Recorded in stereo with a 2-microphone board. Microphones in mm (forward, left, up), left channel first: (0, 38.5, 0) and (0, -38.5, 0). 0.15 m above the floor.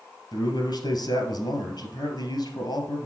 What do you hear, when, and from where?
0.3 s a man speaking: 65° left (ahead or behind), 2.5 m